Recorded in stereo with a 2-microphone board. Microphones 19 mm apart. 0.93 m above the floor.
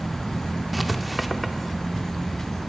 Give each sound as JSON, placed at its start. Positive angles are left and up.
{"t": 0.7, "sound": "writing", "side_deg": -5, "distance_m": 0.6}